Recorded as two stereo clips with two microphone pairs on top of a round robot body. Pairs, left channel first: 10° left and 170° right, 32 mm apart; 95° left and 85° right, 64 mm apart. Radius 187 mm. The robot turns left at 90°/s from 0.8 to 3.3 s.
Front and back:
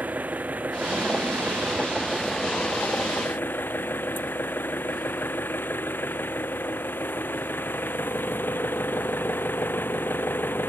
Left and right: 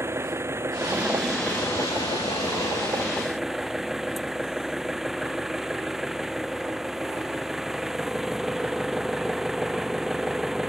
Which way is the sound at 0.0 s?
130° right.